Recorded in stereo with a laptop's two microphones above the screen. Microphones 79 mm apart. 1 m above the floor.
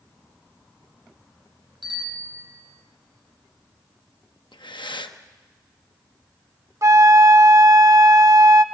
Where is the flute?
40° right (ahead or behind), 0.8 m.